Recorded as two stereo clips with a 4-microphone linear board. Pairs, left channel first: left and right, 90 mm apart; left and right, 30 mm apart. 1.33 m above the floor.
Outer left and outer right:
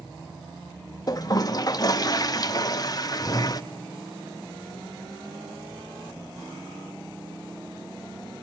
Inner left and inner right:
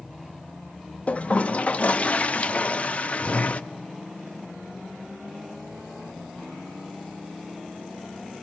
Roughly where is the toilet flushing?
Left.